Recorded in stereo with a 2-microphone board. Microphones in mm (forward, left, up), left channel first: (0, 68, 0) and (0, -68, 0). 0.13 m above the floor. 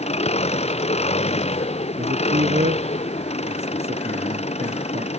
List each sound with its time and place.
0.0 s an engine running: 50° left (ahead or behind)
2.0 s a man speaking: 55° right (ahead or behind)